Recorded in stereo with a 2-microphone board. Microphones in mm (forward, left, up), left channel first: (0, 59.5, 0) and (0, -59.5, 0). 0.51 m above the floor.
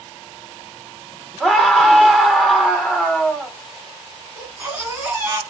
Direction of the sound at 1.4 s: Centre (ahead or behind).